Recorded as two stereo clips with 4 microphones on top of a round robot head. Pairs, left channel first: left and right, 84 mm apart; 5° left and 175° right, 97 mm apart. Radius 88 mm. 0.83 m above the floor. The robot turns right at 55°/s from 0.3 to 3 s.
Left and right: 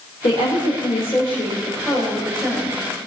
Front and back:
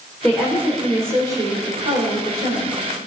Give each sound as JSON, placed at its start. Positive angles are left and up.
{"t": 0.2, "sound": "a woman speaking", "azimuth_deg": 85, "distance_m": 4.0}